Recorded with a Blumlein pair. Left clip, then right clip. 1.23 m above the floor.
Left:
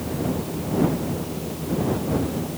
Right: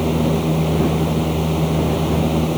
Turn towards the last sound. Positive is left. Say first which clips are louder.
# right 8 dB
turn(degrees=-55)